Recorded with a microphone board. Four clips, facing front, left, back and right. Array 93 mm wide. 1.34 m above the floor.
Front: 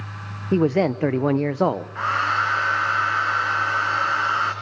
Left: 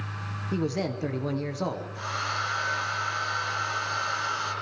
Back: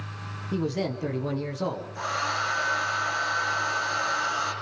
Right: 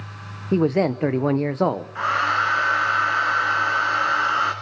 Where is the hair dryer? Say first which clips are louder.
Right 12 dB, front 6 dB; 50° right, 3 m.